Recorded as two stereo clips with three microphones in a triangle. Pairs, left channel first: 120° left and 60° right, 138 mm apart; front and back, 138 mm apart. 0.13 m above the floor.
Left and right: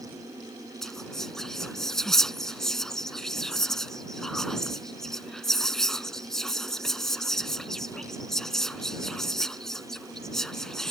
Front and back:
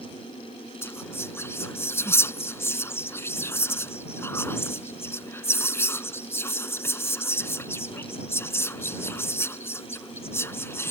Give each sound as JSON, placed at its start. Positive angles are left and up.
{"t": 0.8, "sound": "whispering", "azimuth_deg": 40}